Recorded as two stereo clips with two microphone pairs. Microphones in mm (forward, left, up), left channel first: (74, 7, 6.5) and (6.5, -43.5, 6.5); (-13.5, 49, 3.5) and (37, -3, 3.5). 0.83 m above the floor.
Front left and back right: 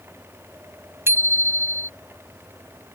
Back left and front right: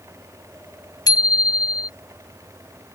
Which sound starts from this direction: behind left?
A bicycle bell, at 1.1 s.